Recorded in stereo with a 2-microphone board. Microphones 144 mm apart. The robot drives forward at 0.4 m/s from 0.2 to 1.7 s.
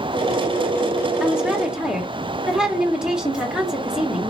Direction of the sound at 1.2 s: 5° right (ahead or behind).